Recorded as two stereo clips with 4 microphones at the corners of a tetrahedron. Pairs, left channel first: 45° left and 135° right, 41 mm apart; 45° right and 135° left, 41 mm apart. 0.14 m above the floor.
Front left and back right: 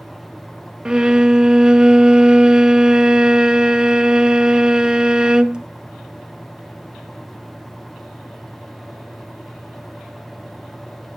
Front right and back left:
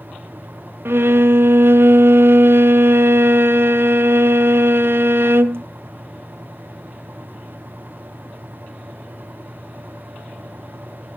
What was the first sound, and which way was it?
A violin, 155° left.